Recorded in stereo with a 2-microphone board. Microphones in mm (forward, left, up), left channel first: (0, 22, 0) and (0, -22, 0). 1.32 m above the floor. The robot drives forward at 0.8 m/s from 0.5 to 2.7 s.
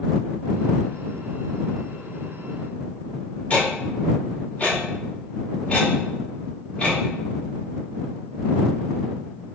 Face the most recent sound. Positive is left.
turn(degrees=30)  # may be behind; listen again after turning